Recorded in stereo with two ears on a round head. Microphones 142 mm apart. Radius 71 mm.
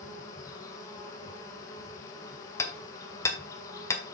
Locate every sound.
0.0 s an insect: 20° left (ahead or behind), 1.5 m
2.6 s hammering: 20° left (ahead or behind), 1.5 m